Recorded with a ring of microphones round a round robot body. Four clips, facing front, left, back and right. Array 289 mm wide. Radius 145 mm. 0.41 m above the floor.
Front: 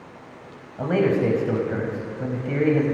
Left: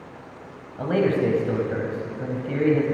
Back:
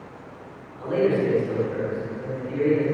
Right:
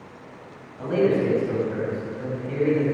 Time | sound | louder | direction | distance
0.8 | a man speaking | even, front 1 dB | 30° left | 3 m